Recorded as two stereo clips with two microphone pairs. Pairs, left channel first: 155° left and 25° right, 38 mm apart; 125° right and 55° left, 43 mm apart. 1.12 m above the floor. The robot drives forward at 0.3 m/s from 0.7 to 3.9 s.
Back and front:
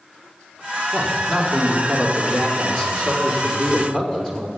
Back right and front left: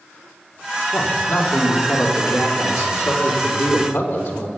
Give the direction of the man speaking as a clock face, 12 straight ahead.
4 o'clock.